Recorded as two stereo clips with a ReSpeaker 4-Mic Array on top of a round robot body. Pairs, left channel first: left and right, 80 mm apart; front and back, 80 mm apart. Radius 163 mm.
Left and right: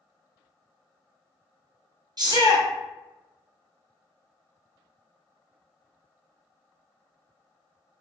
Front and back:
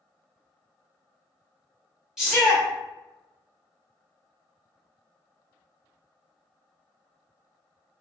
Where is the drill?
No drill in this recording.